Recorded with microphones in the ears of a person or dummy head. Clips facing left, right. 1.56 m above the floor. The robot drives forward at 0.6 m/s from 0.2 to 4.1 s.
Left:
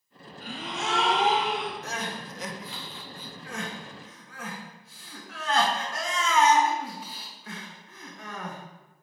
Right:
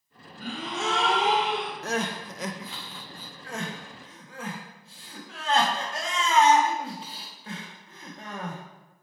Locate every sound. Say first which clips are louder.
0.4 s a gasp: right 3 dB; 70° right (ahead or behind), 1.3 m; by 1.7 s 55° right (ahead or behind), 1.4 m
1.8 s crying: right 5 dB; 45° right (ahead or behind), 0.6 m; by 8.6 s 25° right (ahead or behind), 1.1 m